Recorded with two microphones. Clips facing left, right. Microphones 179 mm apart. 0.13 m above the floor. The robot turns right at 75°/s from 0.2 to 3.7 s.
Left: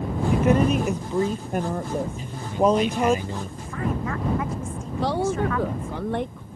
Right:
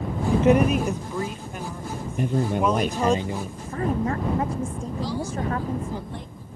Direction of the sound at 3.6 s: 45° right (ahead or behind).